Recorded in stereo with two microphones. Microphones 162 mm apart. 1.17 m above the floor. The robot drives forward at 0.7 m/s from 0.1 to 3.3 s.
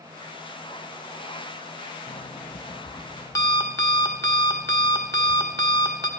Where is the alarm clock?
45° left (ahead or behind), 0.6 m; by 6.1 s 20° left (ahead or behind), 1.4 m.